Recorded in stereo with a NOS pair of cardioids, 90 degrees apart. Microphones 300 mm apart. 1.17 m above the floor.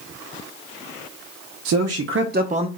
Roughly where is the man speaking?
Right.